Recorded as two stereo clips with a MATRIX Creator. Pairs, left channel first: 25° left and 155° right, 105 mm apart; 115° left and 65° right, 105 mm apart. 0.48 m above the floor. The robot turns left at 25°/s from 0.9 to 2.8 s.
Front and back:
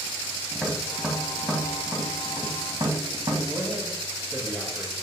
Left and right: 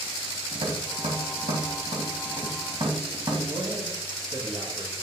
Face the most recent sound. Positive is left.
turn(degrees=-95)